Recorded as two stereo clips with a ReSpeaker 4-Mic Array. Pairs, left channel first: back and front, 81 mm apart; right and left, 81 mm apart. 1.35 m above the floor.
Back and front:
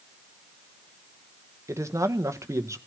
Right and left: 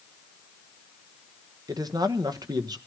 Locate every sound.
1.7 s a man speaking: 55° left, 1.2 m